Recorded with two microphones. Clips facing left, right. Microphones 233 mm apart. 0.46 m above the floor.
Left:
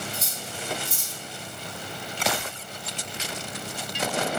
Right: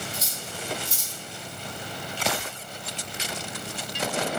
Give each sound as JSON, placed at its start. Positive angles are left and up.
{"t": 0.1, "sound": "cutlery clinking", "side_deg": -75, "distance_m": 1.4}